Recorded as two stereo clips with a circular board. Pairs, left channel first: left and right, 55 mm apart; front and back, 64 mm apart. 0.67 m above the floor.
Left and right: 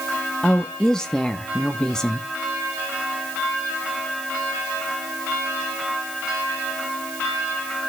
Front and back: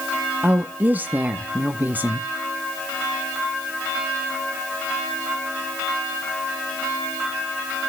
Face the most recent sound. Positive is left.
turn(degrees=155)